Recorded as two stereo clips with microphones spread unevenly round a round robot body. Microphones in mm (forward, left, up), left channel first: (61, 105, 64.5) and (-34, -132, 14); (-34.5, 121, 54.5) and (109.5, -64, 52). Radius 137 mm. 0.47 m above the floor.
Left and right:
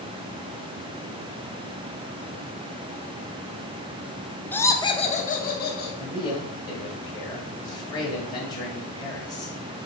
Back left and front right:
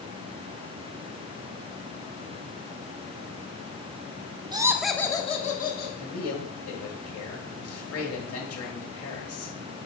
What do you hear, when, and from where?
4.5 s laughter: 35° right, 0.8 m; by 5.9 s 115° left, 1.0 m
6.0 s a man speaking: 145° left, 2 m